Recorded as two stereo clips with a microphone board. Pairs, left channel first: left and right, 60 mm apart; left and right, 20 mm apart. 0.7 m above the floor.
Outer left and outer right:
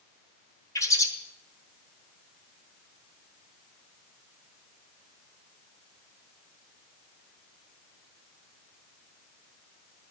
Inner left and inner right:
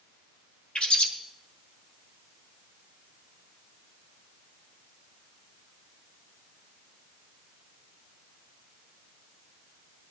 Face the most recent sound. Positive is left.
turn(degrees=65)  # may be behind; listen again after turning